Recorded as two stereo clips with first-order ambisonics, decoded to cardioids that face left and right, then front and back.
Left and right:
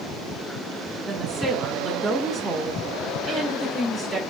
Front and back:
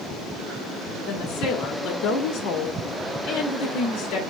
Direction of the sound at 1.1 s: 10° left.